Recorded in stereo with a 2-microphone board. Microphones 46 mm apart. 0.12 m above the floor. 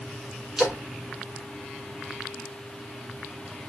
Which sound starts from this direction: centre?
A splash, at 0.6 s.